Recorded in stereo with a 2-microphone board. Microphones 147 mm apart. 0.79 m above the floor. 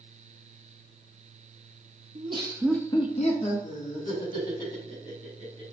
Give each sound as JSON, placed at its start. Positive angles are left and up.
{"t": 2.1, "sound": "laughter", "side_deg": -50, "distance_m": 0.8}